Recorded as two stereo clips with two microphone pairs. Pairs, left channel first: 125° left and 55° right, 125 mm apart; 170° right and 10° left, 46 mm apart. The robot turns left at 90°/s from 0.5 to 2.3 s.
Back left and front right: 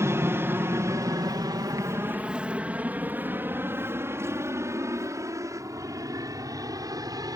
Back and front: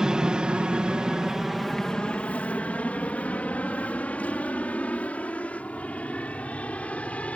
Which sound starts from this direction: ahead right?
An aircraft, at 0.0 s.